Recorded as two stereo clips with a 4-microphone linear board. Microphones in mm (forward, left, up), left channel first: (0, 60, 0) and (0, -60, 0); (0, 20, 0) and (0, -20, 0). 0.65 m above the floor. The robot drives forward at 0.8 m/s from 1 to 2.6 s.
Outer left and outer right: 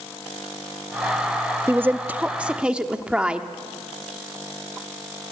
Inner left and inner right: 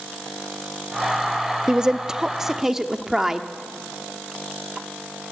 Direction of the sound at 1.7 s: 20° right (ahead or behind).